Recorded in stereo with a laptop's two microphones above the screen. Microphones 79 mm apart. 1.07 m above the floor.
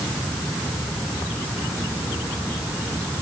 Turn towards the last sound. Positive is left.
No sound to turn to.